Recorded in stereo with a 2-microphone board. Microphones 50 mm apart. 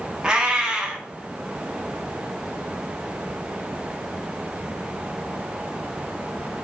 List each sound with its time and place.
0.2 s a cat meowing: 15° right (ahead or behind), 0.6 m